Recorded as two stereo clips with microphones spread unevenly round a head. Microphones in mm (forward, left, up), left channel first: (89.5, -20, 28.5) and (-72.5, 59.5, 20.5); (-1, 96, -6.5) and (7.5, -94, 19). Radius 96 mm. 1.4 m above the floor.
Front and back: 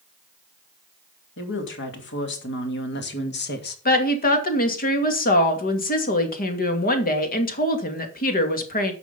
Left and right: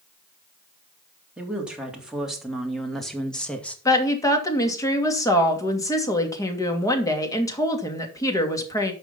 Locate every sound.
1.4 s a woman speaking: straight ahead, 3.5 m; by 3.8 s 10° left, 2.5 m
3.9 s a woman speaking: 20° left, 2.5 m